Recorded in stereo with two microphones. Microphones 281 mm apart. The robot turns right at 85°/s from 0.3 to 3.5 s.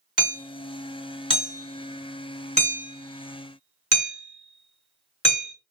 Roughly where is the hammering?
Left.